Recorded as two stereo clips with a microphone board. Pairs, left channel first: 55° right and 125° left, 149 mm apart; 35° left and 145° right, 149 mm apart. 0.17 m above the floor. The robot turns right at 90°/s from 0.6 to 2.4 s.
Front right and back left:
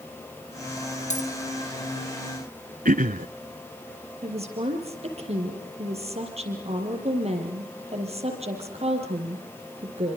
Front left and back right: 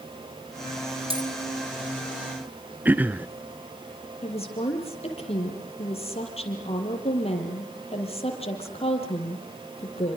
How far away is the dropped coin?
About 3.5 m.